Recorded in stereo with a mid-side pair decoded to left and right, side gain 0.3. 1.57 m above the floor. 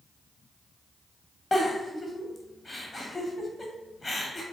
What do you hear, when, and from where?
1.5 s a giggle: 35° left, 1.4 m